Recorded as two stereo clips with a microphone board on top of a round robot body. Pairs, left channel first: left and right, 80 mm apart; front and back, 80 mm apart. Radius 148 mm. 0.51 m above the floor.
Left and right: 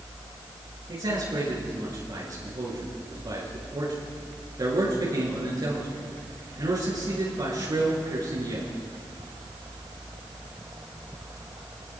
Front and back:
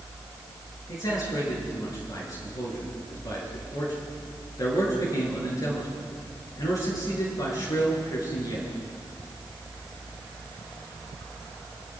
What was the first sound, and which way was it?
A man speaking, 45° right.